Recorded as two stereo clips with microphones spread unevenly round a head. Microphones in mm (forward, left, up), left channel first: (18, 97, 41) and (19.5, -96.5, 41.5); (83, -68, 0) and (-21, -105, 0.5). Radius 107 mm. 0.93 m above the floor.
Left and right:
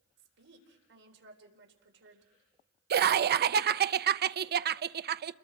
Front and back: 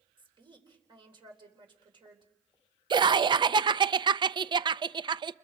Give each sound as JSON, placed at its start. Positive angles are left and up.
{"t": 0.2, "sound": "a woman speaking", "azimuth_deg": -120, "distance_m": 4.0}
{"t": 2.9, "sound": "laughter", "azimuth_deg": -115, "distance_m": 0.5}